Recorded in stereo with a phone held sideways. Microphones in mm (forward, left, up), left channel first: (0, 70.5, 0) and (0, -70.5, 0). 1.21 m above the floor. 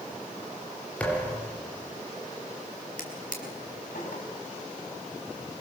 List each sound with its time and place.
1.0 s a thud: 10° left (ahead or behind), 5 m
3.0 s a drawer: 75° left (ahead or behind), 4.5 m